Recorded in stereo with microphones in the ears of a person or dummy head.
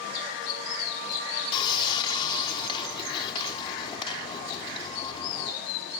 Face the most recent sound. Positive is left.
turn(degrees=20)  # may be behind; listen again after turning